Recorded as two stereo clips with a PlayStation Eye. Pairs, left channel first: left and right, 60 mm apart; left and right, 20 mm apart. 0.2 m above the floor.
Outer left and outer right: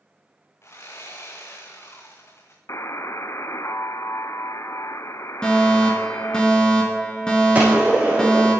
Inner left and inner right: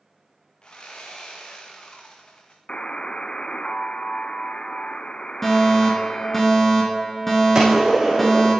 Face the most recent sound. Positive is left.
turn(degrees=-25)  # may be behind; listen again after turning